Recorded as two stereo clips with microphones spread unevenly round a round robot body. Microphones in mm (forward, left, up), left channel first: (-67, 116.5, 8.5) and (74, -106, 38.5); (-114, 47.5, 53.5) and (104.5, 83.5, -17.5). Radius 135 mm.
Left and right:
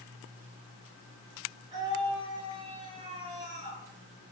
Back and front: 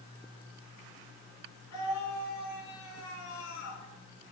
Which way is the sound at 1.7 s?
130° right.